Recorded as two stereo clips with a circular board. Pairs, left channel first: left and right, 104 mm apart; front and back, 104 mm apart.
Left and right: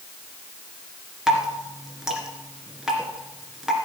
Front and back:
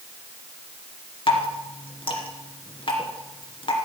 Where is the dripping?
5° right, 2 m.